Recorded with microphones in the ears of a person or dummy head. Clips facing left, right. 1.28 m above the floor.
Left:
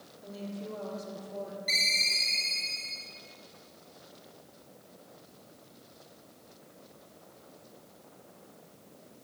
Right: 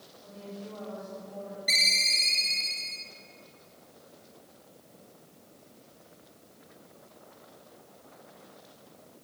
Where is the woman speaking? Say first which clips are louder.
Left 3 dB; 50° left (ahead or behind), 4 m.